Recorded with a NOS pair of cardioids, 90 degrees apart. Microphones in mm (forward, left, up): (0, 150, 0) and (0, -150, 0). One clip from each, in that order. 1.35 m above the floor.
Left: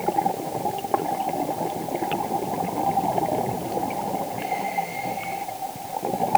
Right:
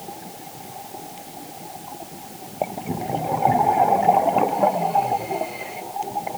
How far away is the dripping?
No dripping in this recording.